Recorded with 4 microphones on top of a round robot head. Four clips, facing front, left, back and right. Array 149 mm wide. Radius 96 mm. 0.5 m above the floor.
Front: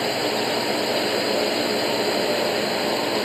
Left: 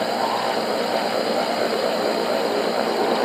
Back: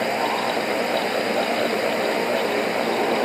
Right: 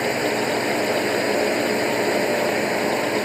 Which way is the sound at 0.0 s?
65° right.